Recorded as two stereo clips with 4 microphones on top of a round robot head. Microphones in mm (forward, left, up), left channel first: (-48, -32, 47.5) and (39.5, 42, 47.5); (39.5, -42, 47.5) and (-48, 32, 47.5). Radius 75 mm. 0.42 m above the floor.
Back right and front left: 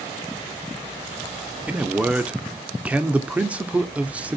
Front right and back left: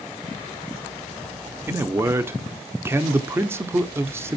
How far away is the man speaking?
About 0.8 m.